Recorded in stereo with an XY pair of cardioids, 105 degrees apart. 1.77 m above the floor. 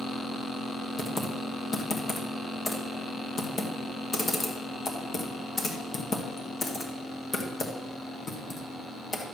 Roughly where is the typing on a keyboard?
Ahead left.